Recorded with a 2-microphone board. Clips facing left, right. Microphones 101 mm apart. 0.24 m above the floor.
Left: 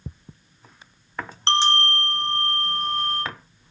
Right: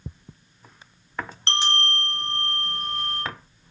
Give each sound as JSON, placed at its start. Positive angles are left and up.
{"t": 1.5, "sound": "a bell", "side_deg": 30, "distance_m": 1.3}